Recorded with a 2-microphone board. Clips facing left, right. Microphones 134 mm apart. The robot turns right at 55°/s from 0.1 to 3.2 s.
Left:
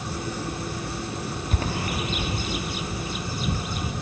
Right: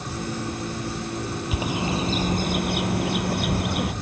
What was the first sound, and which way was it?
A bird, 5° right (ahead or behind).